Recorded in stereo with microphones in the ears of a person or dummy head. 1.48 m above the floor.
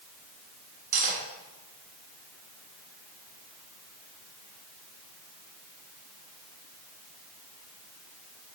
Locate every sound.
0.9 s cutlery clinking: 45° right (ahead or behind), 1.5 m